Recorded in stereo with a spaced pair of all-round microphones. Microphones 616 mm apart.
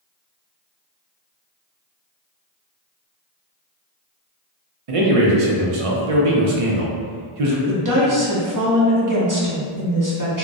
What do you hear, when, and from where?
4.9 s a man speaking: 60° right (ahead or behind), 0.6 m
7.7 s a woman speaking: 30° right (ahead or behind), 0.7 m